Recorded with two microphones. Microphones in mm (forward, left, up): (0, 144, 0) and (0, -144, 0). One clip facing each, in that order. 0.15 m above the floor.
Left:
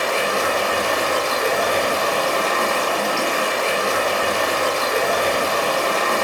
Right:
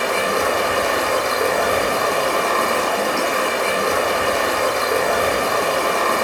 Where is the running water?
65° right (ahead or behind), 1.0 m.